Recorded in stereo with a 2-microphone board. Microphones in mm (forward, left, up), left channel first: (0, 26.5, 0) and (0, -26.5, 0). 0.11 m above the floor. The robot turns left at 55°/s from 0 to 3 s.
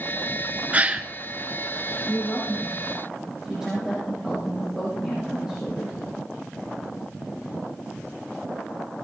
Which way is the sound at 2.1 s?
40° left.